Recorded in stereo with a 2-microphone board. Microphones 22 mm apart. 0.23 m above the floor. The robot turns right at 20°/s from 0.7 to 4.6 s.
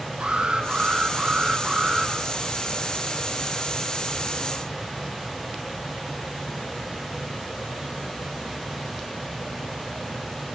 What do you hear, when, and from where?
0.2 s an alarm: 70° right (ahead or behind), 5 m; by 2.1 s 40° right (ahead or behind), 5 m